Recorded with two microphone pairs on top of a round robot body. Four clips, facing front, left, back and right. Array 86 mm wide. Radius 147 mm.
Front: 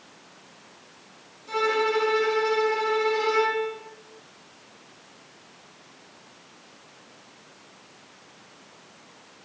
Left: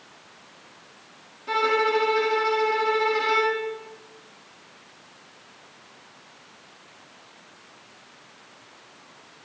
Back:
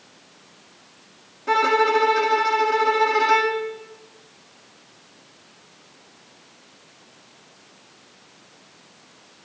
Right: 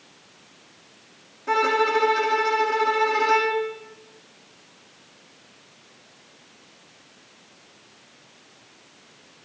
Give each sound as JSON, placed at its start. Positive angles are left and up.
{"t": 1.5, "sound": "a violin", "azimuth_deg": -160, "distance_m": 5.0}